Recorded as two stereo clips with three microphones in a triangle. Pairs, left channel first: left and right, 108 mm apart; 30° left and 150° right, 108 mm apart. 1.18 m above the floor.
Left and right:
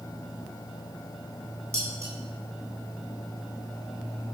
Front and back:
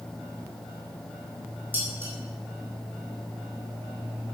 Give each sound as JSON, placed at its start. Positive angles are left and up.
{"t": 1.7, "sound": "dishes clattering", "azimuth_deg": -75, "distance_m": 8.5}